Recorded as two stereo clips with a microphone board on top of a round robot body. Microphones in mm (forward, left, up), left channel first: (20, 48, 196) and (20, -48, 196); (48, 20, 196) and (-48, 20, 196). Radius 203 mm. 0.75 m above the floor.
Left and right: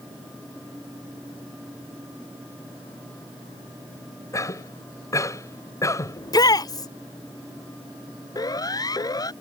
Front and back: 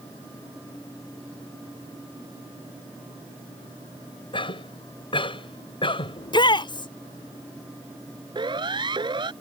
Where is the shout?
40° left.